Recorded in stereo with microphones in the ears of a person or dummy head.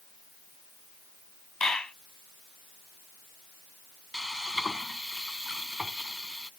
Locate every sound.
1.6 s a clap: 5° left (ahead or behind)
4.1 s frying: 5° left (ahead or behind)